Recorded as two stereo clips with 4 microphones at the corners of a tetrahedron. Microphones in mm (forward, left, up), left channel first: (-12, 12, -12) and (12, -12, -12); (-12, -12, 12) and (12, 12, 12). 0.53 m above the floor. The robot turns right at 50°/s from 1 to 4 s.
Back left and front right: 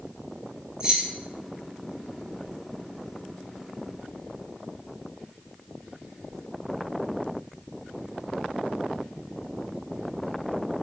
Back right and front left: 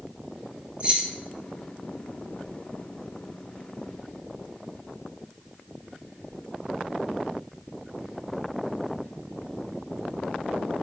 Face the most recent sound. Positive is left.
turn(degrees=160)